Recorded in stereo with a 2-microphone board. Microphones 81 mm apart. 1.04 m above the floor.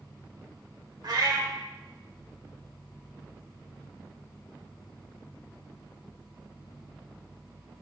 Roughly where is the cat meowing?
Right.